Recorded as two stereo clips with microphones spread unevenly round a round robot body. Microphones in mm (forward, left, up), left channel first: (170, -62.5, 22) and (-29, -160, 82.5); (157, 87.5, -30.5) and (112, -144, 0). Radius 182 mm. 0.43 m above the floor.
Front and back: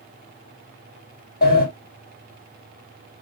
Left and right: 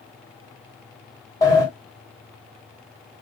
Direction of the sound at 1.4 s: 10° left.